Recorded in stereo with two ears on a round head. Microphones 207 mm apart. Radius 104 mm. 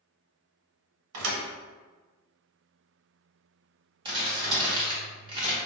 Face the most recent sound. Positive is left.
turn(degrees=-20)  # may be behind; listen again after turning